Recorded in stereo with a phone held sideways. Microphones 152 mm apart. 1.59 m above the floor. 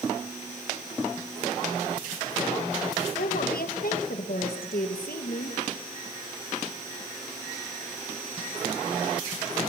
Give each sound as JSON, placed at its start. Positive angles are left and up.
{"t": 3.2, "sound": "a woman speaking", "side_deg": 75, "distance_m": 2.0}